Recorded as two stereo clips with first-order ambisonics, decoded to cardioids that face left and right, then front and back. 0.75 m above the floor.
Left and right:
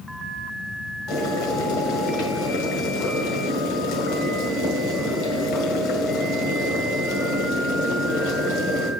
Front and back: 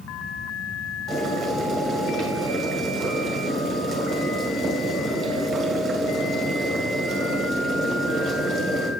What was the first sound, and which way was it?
Boiling, 110° left.